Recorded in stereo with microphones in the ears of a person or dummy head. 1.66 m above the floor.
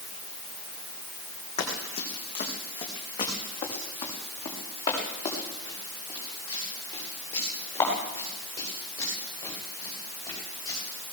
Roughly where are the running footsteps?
Left.